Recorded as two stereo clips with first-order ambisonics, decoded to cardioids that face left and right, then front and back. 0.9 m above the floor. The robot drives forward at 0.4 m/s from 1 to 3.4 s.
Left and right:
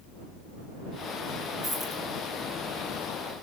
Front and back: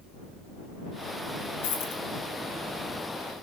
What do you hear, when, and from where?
1.6 s a dropped coin: 10° right, 4.5 m